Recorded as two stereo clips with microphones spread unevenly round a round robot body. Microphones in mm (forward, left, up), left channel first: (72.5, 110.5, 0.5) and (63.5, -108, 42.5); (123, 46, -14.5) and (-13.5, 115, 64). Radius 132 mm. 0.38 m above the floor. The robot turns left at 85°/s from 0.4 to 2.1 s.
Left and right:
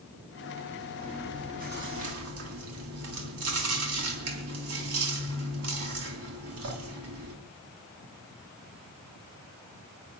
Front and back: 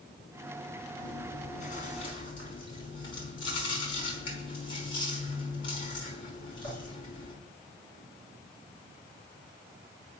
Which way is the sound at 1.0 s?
15° left.